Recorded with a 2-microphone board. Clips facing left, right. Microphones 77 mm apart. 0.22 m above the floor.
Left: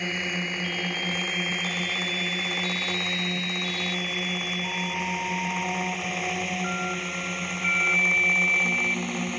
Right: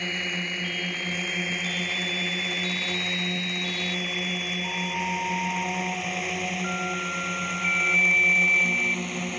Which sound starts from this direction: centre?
A drone, at 0.0 s.